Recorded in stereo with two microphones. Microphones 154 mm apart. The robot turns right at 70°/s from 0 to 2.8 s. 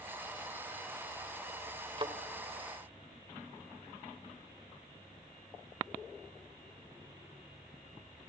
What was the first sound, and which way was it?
A thud, 35° right (ahead or behind).